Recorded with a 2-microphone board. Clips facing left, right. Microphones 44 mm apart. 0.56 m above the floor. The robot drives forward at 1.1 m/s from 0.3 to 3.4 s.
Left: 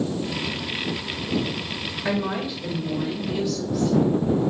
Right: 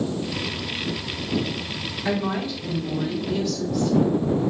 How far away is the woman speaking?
About 1.1 m.